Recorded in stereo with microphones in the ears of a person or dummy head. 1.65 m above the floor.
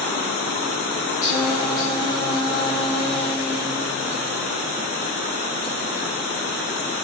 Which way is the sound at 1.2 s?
25° left (ahead or behind).